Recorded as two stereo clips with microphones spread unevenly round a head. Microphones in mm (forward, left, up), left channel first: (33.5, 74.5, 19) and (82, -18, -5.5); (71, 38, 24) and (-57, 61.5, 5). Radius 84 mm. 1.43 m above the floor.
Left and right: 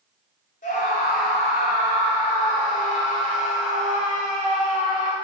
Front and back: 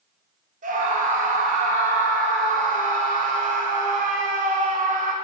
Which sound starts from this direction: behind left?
A scream, at 0.6 s.